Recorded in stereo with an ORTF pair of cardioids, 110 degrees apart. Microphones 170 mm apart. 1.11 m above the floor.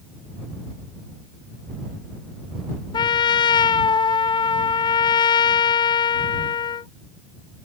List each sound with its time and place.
2.9 s a trumpet: 25° left